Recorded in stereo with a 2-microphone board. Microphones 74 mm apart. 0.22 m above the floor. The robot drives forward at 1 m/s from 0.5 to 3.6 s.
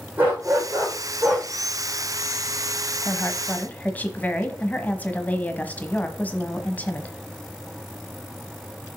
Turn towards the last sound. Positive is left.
turn(degrees=20)  # may be behind; listen again after turning